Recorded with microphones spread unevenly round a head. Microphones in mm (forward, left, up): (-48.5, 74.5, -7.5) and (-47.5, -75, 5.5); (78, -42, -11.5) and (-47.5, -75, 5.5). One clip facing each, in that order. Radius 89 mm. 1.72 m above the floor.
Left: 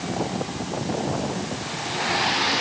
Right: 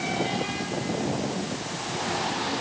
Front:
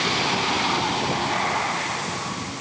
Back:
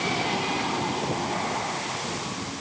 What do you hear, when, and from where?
Only background noise.